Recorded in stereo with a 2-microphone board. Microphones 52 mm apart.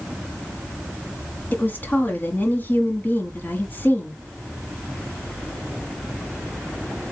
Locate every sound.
1.5 s a woman speaking: 40° left (ahead or behind), 1.2 m